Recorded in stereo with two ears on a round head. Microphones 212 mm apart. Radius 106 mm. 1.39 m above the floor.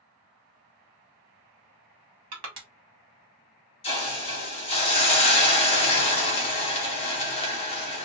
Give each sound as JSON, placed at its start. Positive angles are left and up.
{"t": 2.3, "sound": "crushing", "side_deg": -65, "distance_m": 1.7}
{"t": 3.8, "sound": "a hiss", "side_deg": 25, "distance_m": 1.0}